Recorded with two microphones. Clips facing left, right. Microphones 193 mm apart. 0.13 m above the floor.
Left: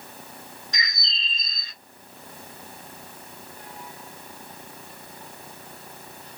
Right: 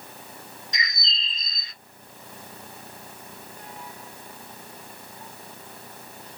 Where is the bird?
20° right (ahead or behind), 1.7 m.